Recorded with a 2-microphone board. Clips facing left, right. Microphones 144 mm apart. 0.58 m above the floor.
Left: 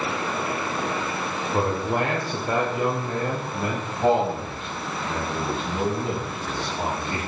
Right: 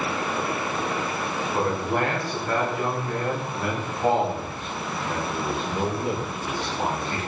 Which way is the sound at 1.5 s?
20° left (ahead or behind).